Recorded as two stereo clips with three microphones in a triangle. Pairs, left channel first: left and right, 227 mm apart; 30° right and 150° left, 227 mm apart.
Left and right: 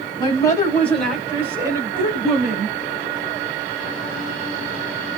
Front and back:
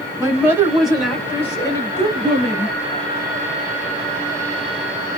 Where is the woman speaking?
100° left, 1.5 m; by 2.8 s 65° right, 1.7 m.